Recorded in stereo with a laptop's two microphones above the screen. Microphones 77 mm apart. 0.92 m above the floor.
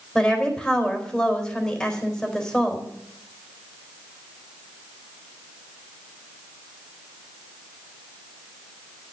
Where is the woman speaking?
15° left (ahead or behind), 4 m.